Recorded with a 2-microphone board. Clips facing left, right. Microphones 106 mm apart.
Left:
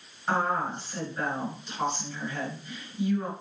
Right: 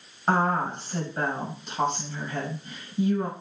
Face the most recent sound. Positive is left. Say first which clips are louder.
# right 3 dB
turn(degrees=-55)  # may be behind; listen again after turning